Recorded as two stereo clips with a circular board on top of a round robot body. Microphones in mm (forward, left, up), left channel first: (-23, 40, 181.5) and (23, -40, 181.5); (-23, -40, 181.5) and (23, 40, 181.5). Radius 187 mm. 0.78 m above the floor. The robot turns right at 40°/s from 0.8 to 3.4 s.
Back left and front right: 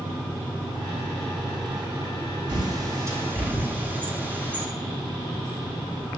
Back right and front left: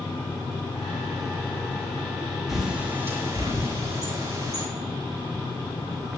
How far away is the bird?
About 3.5 m.